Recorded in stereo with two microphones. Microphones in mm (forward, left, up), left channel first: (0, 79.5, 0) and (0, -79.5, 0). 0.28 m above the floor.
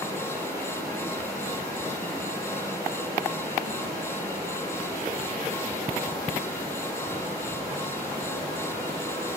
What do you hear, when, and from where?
0.0 s running water: 20° right (ahead or behind), 7 m